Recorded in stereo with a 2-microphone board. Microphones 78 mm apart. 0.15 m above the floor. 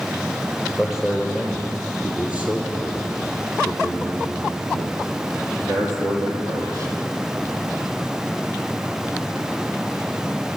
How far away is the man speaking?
About 5 m.